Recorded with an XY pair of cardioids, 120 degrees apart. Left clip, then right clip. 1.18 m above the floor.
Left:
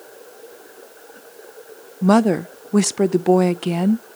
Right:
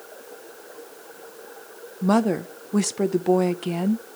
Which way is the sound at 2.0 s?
30° left.